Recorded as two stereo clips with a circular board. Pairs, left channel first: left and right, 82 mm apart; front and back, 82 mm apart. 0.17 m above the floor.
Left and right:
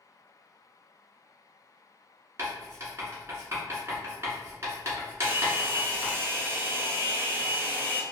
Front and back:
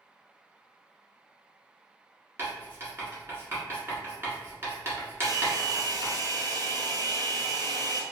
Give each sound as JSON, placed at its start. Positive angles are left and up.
{"t": 2.4, "sound": "writing", "azimuth_deg": -135, "distance_m": 1.4}
{"t": 5.2, "sound": "a hair dryer", "azimuth_deg": -150, "distance_m": 0.7}